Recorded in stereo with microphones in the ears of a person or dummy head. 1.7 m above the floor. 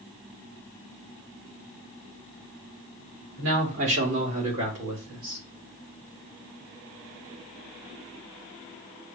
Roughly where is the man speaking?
Right.